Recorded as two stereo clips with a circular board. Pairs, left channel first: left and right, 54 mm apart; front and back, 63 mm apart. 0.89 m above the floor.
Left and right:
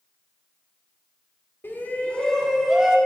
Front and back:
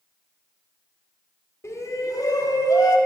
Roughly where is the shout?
Ahead left.